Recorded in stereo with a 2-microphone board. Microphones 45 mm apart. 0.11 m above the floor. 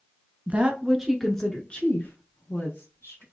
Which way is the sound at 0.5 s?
30° right (ahead or behind).